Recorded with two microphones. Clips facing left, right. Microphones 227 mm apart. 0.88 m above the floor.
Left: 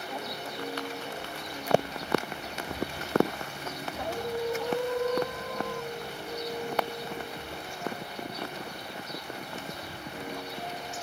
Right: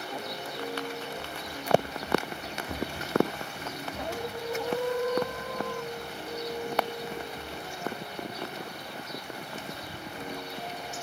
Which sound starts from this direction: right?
Running footsteps, at 1.2 s.